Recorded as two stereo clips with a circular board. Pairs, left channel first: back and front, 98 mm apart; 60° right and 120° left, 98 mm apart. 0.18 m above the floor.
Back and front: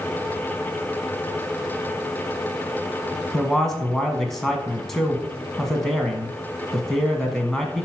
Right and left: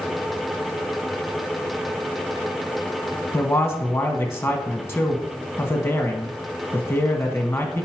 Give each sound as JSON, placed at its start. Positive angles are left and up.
{"t": 3.3, "sound": "a man speaking", "azimuth_deg": -95, "distance_m": 1.1}